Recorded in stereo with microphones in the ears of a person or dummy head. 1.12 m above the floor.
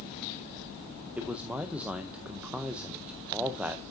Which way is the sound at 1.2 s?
10° right (ahead or behind).